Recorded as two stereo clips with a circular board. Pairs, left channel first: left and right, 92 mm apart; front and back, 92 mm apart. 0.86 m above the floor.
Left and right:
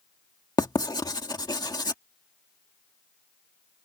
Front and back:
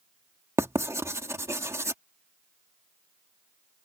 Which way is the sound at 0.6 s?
125° left.